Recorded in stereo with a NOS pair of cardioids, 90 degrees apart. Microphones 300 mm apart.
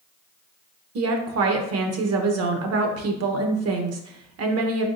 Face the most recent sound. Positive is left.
turn(degrees=-60)